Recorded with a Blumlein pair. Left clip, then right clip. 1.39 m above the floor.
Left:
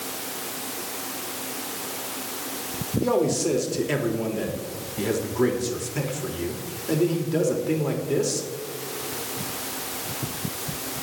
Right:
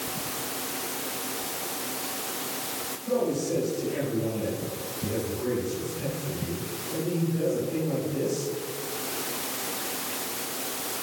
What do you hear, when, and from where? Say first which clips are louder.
3.0 s a man speaking: left 5 dB; 40° left, 3 m